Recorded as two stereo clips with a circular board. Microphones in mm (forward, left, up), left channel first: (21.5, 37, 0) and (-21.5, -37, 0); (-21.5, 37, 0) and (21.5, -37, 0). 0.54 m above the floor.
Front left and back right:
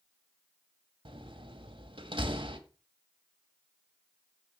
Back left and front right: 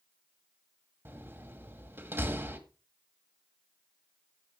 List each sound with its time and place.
1.1 s a door slam: 125° right, 1.7 m